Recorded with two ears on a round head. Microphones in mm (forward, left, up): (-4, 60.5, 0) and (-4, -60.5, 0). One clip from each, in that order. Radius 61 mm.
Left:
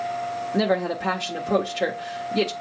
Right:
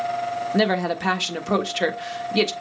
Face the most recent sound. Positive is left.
turn(degrees=-50)  # may be behind; listen again after turning